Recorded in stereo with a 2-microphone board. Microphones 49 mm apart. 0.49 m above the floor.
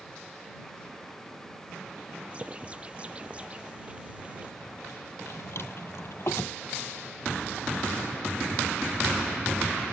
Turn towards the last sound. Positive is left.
turn(degrees=55)  # may be behind; listen again after turning